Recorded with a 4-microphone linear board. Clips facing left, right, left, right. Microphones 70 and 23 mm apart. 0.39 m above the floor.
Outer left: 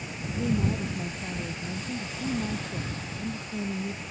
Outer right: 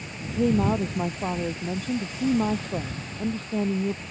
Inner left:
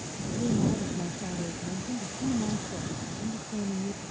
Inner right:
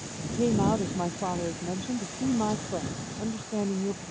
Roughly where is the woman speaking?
Right.